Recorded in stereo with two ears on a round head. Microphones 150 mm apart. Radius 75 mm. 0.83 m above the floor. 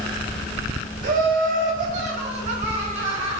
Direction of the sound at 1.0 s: 60° right (ahead or behind).